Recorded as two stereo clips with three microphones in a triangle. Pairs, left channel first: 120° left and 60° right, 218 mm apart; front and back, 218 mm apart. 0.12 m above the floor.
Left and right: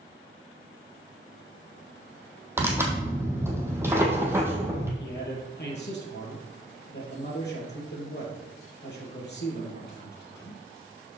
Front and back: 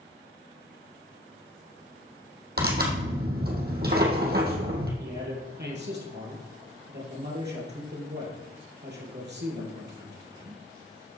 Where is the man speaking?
150° left, 3 m.